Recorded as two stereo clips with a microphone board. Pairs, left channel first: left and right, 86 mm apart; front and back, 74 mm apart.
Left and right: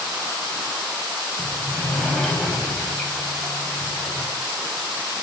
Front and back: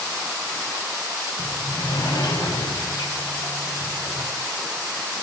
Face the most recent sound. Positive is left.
turn(degrees=5)